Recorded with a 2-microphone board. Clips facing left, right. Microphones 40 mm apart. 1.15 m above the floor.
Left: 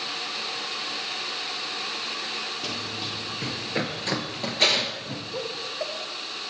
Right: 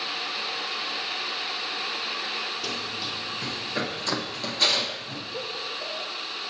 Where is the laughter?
70° left (ahead or behind), 1.5 m.